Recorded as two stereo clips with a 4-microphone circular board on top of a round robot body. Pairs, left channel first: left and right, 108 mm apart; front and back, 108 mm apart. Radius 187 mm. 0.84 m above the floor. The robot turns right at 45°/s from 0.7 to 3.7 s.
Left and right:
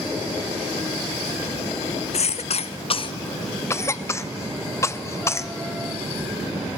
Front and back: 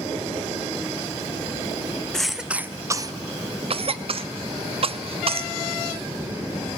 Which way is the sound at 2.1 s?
85° left.